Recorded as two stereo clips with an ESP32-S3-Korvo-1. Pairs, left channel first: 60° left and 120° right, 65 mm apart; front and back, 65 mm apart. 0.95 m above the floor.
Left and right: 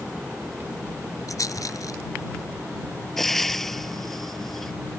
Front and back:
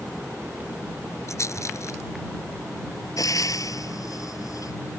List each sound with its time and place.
1.3 s a rattle: 40° left
3.2 s frying: 25° right